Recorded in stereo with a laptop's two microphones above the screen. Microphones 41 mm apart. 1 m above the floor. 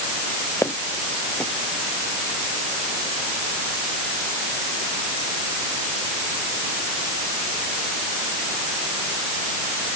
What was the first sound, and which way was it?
Footsteps, 85° left.